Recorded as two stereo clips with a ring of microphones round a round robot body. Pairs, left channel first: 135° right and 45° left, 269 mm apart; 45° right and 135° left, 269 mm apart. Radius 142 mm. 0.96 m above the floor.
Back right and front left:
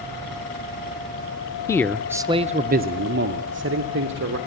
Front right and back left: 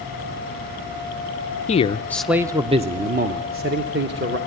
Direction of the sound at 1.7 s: 70° right.